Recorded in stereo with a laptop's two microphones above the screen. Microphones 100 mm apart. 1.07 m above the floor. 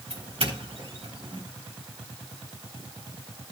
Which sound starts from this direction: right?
A doorbell, at 0.1 s.